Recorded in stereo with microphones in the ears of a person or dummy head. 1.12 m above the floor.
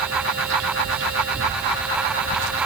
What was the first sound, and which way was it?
Only background noise.